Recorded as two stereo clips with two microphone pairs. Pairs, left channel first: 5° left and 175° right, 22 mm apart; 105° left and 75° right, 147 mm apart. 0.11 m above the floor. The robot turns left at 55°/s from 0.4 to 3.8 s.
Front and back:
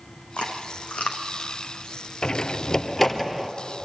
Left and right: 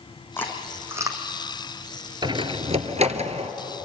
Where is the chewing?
30° left, 3.5 m; by 1.2 s 20° right, 3.5 m.